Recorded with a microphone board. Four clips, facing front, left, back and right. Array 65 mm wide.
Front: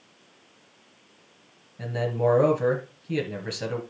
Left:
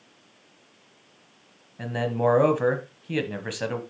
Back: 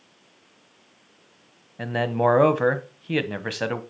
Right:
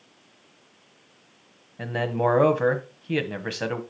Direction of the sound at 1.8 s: 170° right.